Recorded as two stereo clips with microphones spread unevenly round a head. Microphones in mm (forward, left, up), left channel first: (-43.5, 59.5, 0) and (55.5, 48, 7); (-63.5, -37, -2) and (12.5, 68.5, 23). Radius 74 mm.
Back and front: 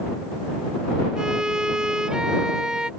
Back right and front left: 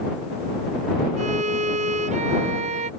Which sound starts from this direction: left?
A violin, at 1.2 s.